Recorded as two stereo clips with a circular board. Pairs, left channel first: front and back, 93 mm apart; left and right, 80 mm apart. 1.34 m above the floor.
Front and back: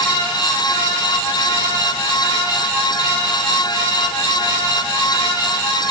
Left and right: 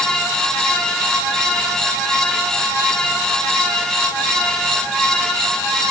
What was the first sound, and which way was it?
Only background noise.